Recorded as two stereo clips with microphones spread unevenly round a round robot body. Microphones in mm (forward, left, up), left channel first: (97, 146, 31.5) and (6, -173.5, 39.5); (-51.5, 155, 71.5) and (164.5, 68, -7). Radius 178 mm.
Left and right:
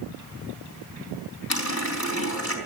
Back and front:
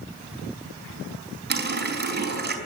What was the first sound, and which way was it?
A running tap, 25° left.